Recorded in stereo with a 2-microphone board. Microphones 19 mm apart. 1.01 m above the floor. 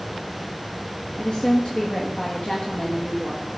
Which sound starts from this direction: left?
A woman speaking, at 1.2 s.